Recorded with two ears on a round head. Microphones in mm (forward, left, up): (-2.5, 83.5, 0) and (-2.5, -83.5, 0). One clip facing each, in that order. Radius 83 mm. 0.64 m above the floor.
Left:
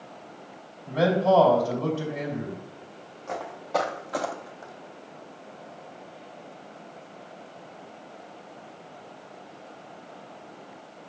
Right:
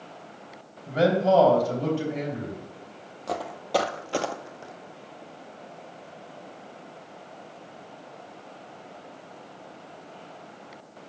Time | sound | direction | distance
0.9 | a man speaking | 25° right (ahead or behind) | 3 m
3.3 | footsteps | 45° right (ahead or behind) | 1.0 m